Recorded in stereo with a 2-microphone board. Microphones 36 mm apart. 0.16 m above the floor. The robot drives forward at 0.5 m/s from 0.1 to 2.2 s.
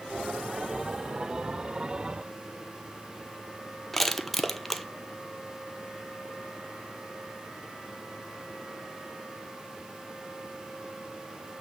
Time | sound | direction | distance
3.9 | crushing | 5° left (ahead or behind) | 0.7 m